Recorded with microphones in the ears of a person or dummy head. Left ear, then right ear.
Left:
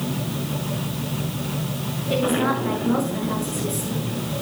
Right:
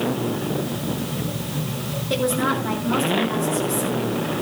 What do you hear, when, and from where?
2.1 s a woman speaking: 10° right (ahead or behind), 6.5 m